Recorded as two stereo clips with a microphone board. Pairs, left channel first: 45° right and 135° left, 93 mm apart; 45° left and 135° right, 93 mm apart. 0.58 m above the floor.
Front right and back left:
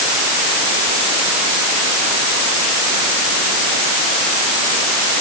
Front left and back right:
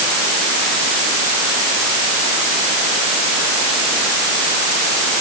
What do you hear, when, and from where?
Only background noise.